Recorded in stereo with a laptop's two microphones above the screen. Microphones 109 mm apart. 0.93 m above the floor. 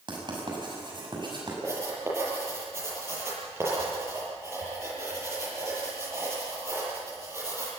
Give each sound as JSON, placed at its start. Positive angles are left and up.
{"t": 0.1, "sound": "writing", "side_deg": -45, "distance_m": 6.5}
{"t": 1.6, "sound": "writing", "side_deg": -25, "distance_m": 7.0}